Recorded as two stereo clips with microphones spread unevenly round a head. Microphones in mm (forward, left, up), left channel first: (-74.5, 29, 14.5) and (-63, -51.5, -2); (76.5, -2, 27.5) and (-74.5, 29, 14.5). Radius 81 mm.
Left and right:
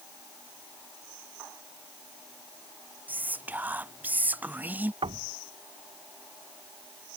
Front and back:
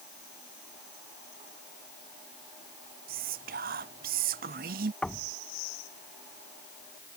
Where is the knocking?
95° right.